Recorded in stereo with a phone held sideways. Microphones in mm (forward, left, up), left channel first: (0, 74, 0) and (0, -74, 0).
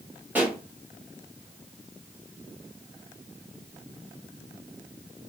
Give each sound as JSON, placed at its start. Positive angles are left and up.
{"t": 0.3, "sound": "a pop", "side_deg": -15, "distance_m": 1.7}